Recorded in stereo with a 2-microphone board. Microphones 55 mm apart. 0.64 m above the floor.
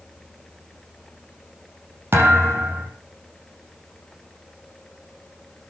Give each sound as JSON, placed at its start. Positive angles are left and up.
{"t": 2.1, "sound": "a thud", "side_deg": -40, "distance_m": 6.5}